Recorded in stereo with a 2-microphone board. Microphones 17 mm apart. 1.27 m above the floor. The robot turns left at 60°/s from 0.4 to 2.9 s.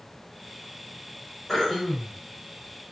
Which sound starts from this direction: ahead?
Throat clearing, at 1.5 s.